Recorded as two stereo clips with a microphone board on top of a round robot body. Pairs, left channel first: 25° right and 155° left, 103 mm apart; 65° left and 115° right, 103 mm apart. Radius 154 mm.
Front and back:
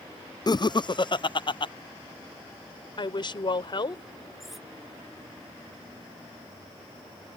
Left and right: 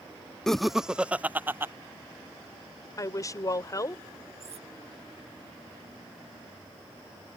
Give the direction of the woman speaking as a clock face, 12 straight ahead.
12 o'clock.